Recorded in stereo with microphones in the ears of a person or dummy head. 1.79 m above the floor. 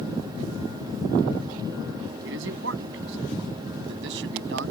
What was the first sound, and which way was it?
A man speaking, 75° right (ahead or behind).